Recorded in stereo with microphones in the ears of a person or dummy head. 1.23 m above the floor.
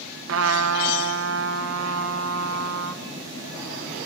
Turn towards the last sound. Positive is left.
turn(degrees=-75)  # may be behind; listen again after turning